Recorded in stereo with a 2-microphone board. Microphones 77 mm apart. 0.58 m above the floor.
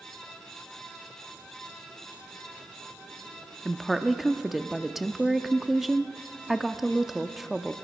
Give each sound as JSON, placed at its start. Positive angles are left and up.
{"t": 3.6, "sound": "a woman speaking", "side_deg": -5, "distance_m": 0.6}